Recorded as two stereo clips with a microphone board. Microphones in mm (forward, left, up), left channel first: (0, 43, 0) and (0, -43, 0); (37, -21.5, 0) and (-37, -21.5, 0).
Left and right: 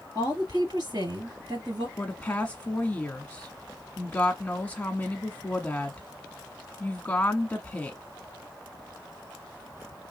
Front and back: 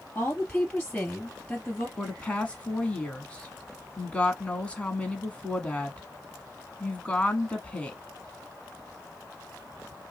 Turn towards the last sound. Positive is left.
turn(degrees=50)